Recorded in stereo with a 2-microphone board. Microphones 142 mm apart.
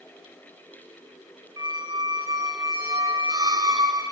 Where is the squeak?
25° right (ahead or behind), 0.7 m.